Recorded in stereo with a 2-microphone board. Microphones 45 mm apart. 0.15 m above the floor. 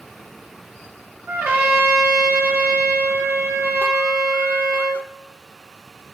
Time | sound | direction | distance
1.3 | a trumpet | 50° right (ahead or behind) | 2 m